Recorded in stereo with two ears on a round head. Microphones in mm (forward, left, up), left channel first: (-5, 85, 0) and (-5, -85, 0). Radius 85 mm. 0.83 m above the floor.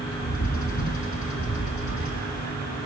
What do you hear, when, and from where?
0.2 s a bird: 45° left (ahead or behind), 1.6 m